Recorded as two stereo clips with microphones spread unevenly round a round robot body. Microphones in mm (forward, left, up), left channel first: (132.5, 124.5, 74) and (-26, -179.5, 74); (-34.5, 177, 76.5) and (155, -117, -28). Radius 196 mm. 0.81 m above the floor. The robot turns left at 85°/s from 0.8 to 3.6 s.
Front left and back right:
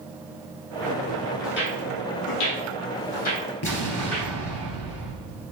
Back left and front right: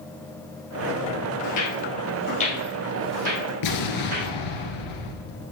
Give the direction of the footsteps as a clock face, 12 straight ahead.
8 o'clock.